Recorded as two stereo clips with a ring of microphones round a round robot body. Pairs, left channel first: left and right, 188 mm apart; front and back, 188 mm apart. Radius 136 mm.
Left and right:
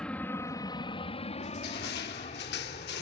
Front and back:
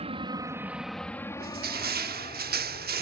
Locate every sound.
0.0 s an aircraft: 170° left; by 3.0 s 45° left
1.4 s crushing: 140° left